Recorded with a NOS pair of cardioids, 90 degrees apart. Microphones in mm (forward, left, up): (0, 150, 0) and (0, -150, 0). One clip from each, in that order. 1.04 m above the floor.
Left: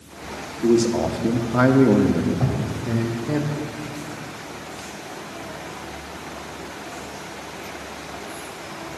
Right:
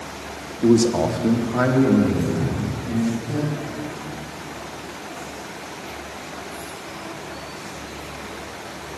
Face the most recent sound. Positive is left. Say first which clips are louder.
# left 1 dB
turn(degrees=55)